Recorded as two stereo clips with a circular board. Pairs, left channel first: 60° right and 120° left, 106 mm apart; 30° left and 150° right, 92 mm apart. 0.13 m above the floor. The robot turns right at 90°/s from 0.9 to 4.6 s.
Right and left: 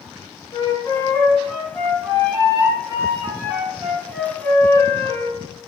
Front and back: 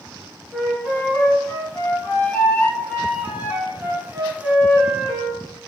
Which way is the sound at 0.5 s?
55° right.